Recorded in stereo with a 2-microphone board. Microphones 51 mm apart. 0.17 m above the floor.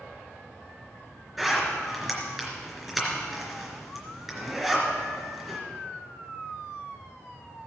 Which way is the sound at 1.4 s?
5° right (ahead or behind).